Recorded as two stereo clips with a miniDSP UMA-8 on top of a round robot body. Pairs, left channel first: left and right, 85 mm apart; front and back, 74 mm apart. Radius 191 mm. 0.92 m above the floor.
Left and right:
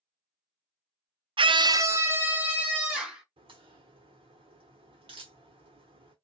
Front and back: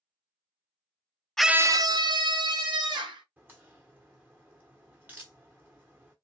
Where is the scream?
85° right, 0.6 m; by 3.2 s 170° right, 3 m.